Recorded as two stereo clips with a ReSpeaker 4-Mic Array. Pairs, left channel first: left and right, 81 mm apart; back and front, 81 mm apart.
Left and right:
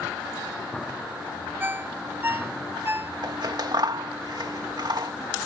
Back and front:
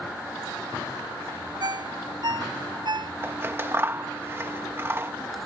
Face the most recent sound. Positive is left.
turn(degrees=-60)